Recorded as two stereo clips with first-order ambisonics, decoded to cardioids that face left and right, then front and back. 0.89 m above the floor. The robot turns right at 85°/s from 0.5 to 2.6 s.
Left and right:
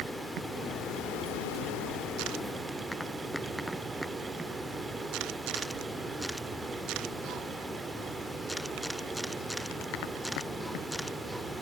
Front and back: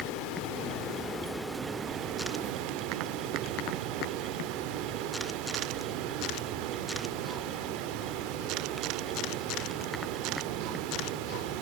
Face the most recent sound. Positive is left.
turn(degrees=-175)